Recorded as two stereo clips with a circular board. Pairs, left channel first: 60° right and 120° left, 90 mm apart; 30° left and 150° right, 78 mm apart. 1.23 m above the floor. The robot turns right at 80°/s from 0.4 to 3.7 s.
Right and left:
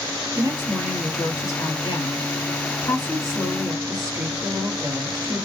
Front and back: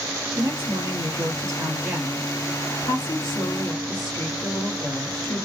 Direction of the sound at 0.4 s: 160° left.